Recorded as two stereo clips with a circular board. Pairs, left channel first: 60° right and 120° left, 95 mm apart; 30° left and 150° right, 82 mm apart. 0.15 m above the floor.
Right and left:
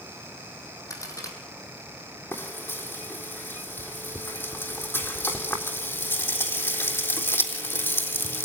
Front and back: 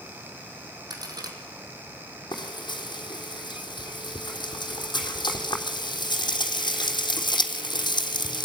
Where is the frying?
5° left, 3.5 m.